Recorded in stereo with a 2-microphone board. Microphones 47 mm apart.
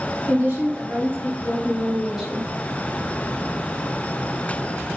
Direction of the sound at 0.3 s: 45° right (ahead or behind).